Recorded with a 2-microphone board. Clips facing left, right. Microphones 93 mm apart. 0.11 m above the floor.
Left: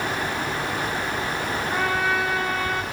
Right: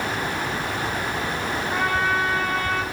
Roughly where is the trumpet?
Centre.